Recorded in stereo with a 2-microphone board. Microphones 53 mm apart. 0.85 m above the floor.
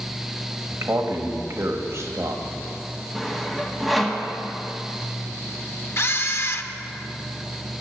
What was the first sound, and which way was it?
A man speaking, 60° right (ahead or behind).